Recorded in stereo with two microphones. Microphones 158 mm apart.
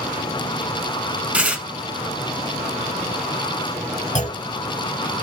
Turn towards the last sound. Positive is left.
turn(degrees=50)  # may be behind; listen again after turning